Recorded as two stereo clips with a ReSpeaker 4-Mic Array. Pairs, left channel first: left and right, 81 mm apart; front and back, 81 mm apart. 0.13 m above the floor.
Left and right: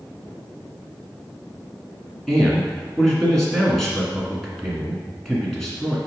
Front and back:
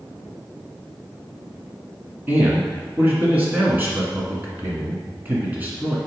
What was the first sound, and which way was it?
A man speaking, 170° left.